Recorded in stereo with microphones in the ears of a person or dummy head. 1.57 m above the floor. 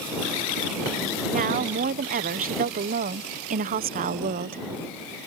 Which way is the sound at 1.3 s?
40° right (ahead or behind).